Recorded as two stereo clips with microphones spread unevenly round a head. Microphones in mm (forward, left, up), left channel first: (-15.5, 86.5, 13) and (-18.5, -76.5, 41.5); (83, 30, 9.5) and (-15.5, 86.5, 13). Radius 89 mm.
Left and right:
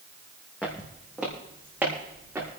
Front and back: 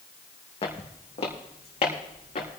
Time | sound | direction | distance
0.6 | footsteps | straight ahead | 2.5 m